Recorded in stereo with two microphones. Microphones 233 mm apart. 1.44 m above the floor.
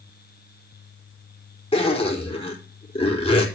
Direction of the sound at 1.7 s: 25° left (ahead or behind).